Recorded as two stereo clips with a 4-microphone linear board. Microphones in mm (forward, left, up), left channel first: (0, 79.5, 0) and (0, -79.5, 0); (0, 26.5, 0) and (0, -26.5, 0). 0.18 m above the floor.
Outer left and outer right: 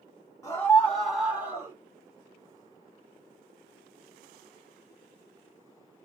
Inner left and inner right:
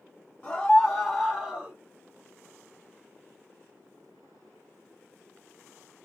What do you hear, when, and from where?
0.4 s a scream: 20° left (ahead or behind), 1.1 m; by 1.8 s 20° right (ahead or behind), 1.1 m